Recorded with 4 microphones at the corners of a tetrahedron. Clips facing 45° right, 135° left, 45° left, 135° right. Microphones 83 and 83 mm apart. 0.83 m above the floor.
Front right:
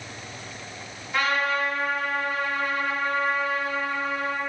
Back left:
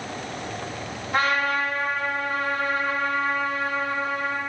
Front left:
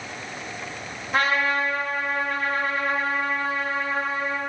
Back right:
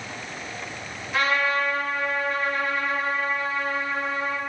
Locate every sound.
1.1 s a trumpet: 90° left, 1.6 m